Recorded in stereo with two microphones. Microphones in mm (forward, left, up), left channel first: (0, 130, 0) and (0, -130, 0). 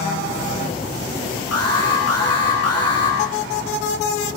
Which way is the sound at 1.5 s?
75° left (ahead or behind).